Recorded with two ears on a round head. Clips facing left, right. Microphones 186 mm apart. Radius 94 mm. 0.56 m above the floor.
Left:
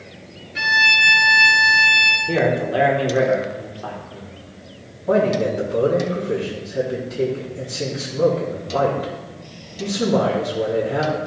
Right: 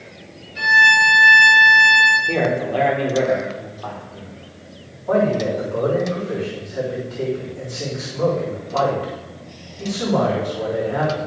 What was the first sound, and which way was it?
A violin, 70° left (ahead or behind).